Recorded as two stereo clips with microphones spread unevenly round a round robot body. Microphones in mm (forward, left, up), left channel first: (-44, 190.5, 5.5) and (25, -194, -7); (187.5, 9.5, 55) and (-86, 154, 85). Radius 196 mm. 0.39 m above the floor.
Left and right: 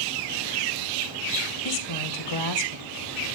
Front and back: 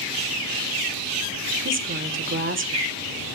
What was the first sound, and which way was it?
A woman speaking, 105° left.